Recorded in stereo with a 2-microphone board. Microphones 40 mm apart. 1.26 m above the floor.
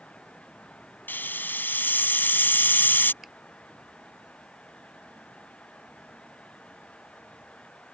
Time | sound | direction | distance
1.1 | a hiss | 55° left (ahead or behind) | ?
3.2 | a finger snap | 5° right (ahead or behind) | ?